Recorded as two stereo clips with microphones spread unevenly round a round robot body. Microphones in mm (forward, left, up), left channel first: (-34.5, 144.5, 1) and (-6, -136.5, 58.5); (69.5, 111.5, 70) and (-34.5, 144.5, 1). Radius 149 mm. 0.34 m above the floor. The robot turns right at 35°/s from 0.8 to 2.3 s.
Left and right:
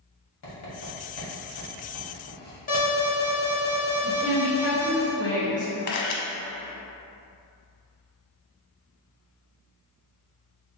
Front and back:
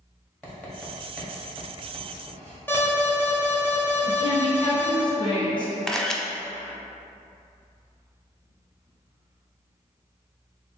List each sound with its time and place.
0.4 s writing: 80° left, 1.7 m; by 2.6 s 130° left, 1.7 m
2.7 s an alarm: 90° left, 1.4 m
4.0 s a woman speaking: 45° left, 1.7 m
5.9 s a camera shutter: 70° left, 0.6 m